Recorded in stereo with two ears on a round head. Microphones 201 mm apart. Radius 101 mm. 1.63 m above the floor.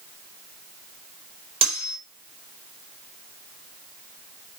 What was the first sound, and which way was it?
Cutlery clinking, 25° right (ahead or behind).